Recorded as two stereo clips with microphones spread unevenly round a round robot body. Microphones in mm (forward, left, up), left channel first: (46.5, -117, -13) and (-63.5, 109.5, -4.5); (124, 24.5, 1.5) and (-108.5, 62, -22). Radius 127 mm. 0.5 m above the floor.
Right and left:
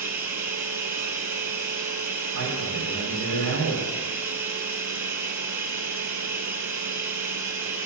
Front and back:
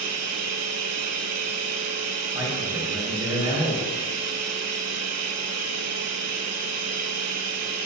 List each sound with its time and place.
0.0 s running water: 165° right, 0.7 m
2.3 s a man speaking: 100° left, 2.5 m